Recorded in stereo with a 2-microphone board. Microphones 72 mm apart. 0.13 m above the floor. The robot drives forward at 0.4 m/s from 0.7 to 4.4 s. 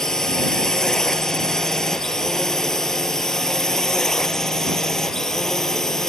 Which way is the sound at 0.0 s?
10° left (ahead or behind).